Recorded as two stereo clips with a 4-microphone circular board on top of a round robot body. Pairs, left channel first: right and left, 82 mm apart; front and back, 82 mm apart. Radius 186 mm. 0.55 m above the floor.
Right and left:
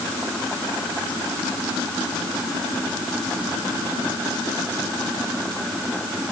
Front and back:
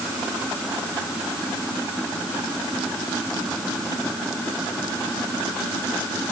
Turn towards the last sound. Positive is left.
No sound to turn to.